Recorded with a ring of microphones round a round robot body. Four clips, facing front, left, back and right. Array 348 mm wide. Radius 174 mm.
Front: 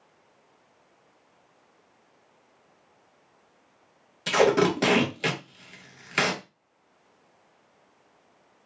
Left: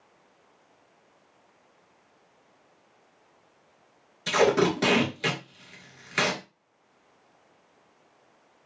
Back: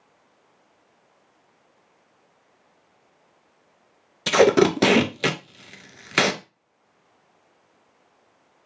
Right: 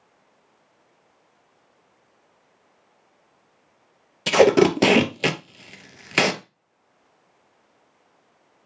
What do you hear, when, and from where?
4.3 s tape being pulled: 125° right, 0.5 m